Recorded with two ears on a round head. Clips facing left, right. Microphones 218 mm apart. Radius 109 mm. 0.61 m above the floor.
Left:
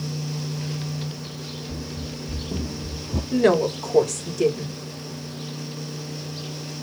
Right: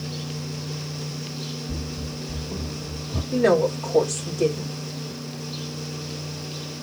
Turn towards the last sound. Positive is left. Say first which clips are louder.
# even
turn(degrees=60)  # may be behind; listen again after turning